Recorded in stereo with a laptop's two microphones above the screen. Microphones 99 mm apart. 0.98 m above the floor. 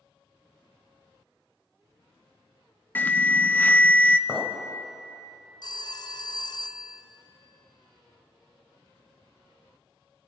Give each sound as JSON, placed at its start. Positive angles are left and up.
{"t": 3.0, "sound": "an alarm", "side_deg": 20, "distance_m": 0.7}
{"t": 4.3, "sound": "a clink", "side_deg": 5, "distance_m": 2.5}
{"t": 5.6, "sound": "a phone ringing", "side_deg": 45, "distance_m": 0.7}